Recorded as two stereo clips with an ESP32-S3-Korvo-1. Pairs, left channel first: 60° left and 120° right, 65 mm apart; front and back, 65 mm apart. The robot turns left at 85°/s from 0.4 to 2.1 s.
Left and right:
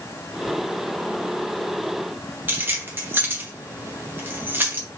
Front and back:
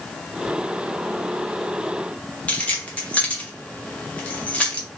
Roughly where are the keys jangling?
Ahead right.